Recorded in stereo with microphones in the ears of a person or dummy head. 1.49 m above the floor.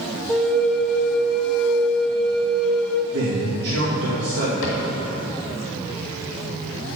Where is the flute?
Centre (ahead or behind), 0.6 m.